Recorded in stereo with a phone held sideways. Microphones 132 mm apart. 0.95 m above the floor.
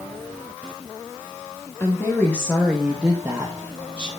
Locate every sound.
1.8 s a woman speaking: 20° left (ahead or behind), 2 m; by 4.1 s 45° right (ahead or behind), 1.4 m